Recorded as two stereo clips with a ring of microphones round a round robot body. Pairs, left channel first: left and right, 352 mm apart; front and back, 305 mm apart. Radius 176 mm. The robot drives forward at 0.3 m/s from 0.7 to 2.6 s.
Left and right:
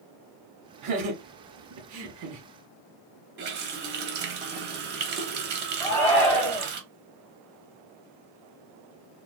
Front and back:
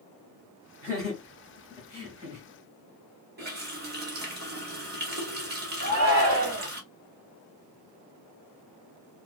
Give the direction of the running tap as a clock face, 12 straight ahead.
5 o'clock.